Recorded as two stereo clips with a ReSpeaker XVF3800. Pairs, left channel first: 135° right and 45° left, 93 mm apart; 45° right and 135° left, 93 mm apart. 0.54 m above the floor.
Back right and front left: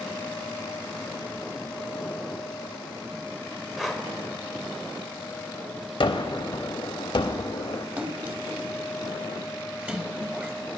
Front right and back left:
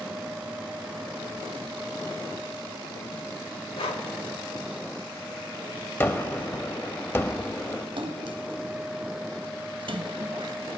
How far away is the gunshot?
About 0.6 m.